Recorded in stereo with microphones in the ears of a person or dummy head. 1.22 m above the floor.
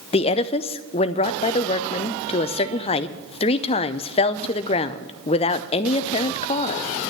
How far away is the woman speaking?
About 0.6 m.